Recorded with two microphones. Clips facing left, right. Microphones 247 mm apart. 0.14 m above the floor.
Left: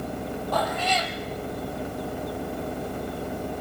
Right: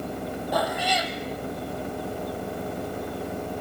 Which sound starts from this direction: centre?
A cat meowing, at 0.5 s.